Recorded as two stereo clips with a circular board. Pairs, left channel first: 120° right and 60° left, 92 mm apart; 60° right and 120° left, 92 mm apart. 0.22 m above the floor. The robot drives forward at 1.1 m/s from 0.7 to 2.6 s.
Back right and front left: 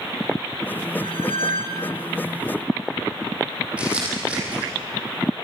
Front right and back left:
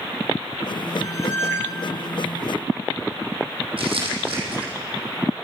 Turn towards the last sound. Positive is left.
turn(degrees=135)